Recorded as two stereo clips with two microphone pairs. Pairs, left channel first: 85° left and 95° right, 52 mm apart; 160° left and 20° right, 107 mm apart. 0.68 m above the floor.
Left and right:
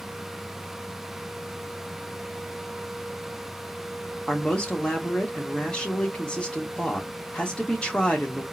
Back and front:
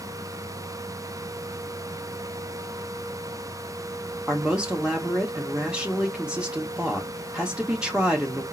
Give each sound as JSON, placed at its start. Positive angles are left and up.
{"t": 4.3, "sound": "a man speaking", "azimuth_deg": 45, "distance_m": 1.2}